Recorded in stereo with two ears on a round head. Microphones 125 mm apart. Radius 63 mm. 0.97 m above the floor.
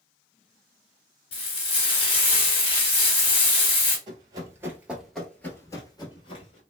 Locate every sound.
1.3 s frying: 45° left (ahead or behind), 1.2 m
4.1 s running footsteps: 35° right (ahead or behind), 1.1 m; by 6.6 s 45° left (ahead or behind), 1.3 m